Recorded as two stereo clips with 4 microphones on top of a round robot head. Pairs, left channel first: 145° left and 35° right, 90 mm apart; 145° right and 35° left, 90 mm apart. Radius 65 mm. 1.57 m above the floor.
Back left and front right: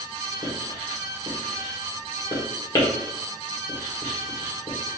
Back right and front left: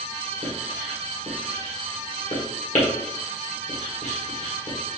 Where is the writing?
160° right, 1.4 m.